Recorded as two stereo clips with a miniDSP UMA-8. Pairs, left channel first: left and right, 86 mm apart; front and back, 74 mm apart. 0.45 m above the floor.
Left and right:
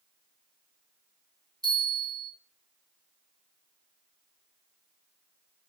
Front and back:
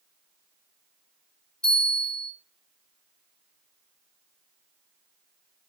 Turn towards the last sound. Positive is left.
turn(degrees=-75)